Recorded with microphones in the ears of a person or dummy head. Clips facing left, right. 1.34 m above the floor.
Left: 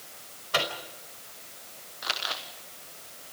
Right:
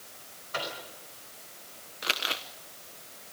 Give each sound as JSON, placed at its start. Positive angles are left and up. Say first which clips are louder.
{"t": 0.5, "sound": "a microwave", "louder": "left 6 dB", "side_deg": 55, "distance_m": 4.5}
{"t": 2.0, "sound": "crumpling", "louder": "right 1 dB", "side_deg": -40, "distance_m": 1.2}